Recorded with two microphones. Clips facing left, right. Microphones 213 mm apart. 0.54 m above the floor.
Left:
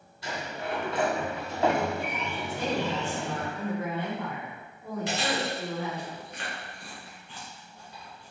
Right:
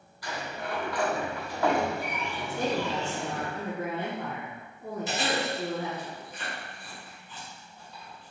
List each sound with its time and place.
0.2 s a sliding door: 25° left (ahead or behind), 0.7 m
2.5 s a woman speaking: 45° right (ahead or behind), 1.2 m
5.1 s chewing: 80° left, 1.9 m